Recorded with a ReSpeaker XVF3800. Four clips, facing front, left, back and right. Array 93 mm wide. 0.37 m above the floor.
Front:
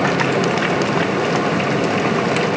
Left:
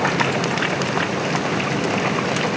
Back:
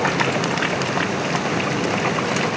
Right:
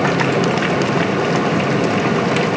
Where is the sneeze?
No sneeze in this recording.